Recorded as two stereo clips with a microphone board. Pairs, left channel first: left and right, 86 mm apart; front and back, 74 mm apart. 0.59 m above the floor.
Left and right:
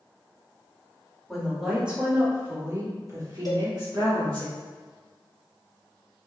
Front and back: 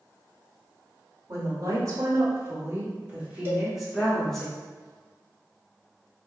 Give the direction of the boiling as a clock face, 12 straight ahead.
I don't hear boiling.